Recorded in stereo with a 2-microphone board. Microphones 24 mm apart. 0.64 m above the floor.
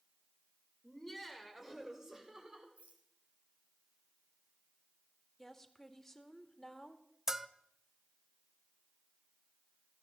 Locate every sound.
0.8 s laughter: 10° left (ahead or behind), 2.5 m; by 2.7 s 30° right (ahead or behind), 3.5 m
2.8 s a rattle: 70° right (ahead or behind), 3 m
5.4 s a woman speaking: 15° left (ahead or behind), 1.6 m
7.3 s a bell: 15° right (ahead or behind), 0.6 m